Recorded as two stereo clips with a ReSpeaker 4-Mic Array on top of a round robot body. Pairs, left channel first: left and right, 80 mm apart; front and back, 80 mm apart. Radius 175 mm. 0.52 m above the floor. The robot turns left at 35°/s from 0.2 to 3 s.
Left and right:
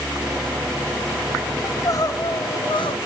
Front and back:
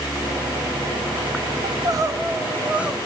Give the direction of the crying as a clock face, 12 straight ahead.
7 o'clock.